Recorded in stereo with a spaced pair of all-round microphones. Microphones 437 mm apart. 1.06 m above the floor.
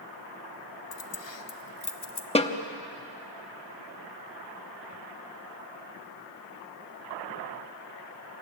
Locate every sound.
0.9 s keys jangling: 75° left (ahead or behind), 0.6 m; by 2.2 s 65° left (ahead or behind), 1.2 m
2.4 s a snare drum: 15° left (ahead or behind), 0.9 m